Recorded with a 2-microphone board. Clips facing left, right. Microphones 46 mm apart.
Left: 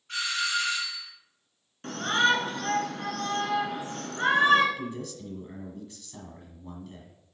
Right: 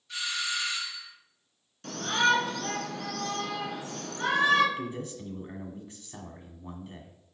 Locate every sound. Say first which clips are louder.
0.1 s a doorbell: left 4 dB; 50° left (ahead or behind), 3 m
1.8 s a shout: left 1 dB; 35° left (ahead or behind), 1.9 m
4.8 s a man speaking: even; 25° right (ahead or behind), 1.7 m